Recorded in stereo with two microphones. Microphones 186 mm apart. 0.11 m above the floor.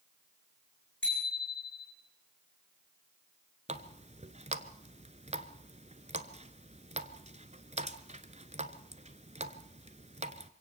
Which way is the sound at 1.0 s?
80° left.